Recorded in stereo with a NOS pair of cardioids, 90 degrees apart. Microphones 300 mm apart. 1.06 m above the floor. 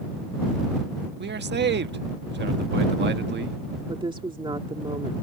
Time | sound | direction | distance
1.2 | a man speaking | 35° right | ?
3.9 | a woman speaking | 15° right | ?